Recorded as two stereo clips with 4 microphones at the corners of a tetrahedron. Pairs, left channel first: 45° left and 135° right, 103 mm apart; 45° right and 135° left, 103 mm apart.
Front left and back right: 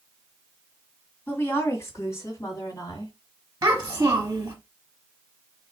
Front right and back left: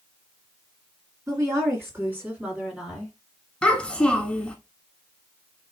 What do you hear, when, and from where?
1.3 s a woman speaking: 105° left, 2.0 m; by 3.1 s 50° left, 1.9 m
3.6 s a child speaking: 115° right, 0.9 m